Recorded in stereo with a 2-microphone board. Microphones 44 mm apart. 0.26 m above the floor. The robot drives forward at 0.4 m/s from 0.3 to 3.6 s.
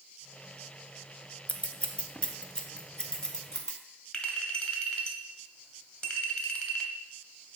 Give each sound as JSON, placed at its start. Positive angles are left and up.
{"t": 1.5, "sound": "scissors", "side_deg": 35, "distance_m": 0.6}
{"t": 4.1, "sound": "a clink", "side_deg": 20, "distance_m": 1.1}